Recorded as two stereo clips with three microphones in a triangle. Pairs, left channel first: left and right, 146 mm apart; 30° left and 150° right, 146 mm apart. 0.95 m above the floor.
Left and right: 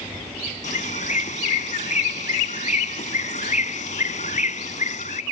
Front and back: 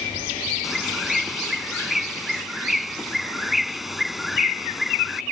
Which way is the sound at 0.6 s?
120° left.